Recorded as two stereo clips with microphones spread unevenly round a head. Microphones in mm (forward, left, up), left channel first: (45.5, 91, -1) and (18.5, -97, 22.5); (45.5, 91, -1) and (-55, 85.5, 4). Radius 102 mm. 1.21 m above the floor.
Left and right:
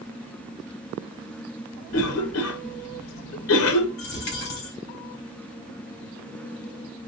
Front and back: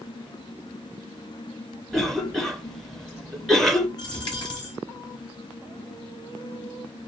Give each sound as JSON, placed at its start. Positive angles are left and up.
{"t": 1.9, "sound": "a cough", "azimuth_deg": 90, "distance_m": 0.6}
{"t": 4.0, "sound": "a dropped coin", "azimuth_deg": 50, "distance_m": 2.5}